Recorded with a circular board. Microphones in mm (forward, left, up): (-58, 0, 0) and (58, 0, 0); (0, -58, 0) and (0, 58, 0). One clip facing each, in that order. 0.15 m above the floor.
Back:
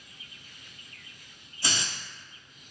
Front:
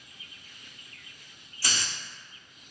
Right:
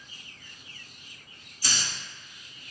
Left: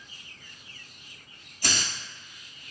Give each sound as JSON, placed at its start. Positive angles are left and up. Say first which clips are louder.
{"t": 1.6, "sound": "a hiss", "louder": "back 1 dB, left 3 dB", "azimuth_deg": 115, "distance_m": 0.6}